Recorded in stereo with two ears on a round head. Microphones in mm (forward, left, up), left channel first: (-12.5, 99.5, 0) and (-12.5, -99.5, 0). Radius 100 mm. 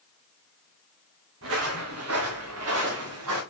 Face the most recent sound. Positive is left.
turn(degrees=-80)